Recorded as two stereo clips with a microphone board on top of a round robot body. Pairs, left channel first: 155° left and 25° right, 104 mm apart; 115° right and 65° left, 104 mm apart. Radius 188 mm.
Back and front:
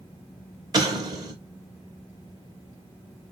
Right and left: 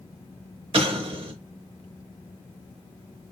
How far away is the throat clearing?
No throat clearing in this recording.